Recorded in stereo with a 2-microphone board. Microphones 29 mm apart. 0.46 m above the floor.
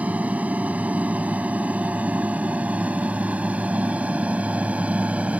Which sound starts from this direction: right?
An aircraft, at 0.0 s.